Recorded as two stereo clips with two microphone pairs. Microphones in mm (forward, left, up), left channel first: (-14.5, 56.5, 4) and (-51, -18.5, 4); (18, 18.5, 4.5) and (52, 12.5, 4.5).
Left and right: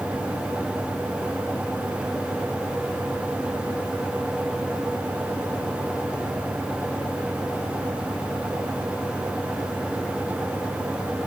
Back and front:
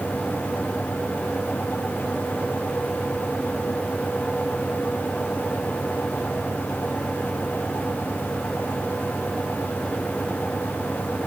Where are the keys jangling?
No keys jangling in this recording.